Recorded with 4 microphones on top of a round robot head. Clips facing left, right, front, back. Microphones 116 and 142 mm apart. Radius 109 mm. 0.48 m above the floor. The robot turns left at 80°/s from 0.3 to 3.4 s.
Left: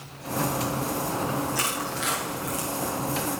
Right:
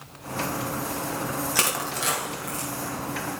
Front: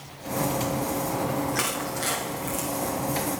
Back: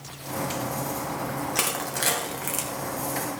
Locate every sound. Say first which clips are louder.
1.6 s crushing: right 1 dB, front 1 dB; 110° right, 2.5 m; by 2.7 s 160° left, 2.5 m